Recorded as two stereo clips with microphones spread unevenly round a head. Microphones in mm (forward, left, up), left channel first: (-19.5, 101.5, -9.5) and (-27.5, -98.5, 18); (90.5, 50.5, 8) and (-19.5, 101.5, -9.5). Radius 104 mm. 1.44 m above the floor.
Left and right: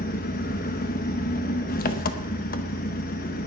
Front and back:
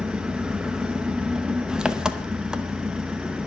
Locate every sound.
0.0 s an engine running: 65° left, 0.7 m